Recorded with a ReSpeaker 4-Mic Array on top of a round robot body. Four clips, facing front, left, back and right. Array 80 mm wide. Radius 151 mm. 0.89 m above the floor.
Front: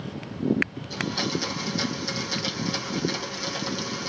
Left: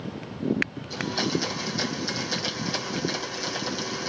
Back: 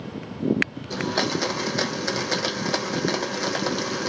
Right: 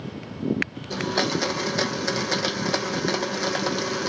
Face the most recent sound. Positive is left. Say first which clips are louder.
# right 4 dB, back 7 dB
turn(degrees=-135)